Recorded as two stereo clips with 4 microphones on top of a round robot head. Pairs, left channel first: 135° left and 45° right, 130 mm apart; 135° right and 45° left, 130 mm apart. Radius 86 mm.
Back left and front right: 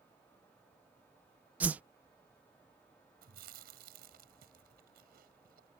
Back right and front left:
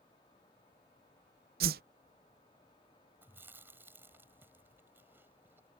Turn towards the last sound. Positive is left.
turn(degrees=-30)